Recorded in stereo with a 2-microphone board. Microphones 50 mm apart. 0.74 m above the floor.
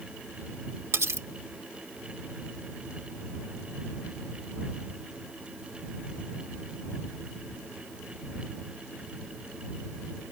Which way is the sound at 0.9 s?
70° right (ahead or behind).